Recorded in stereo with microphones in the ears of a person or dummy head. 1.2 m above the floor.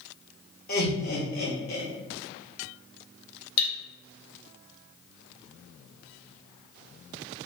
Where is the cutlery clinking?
65° left (ahead or behind), 0.7 m.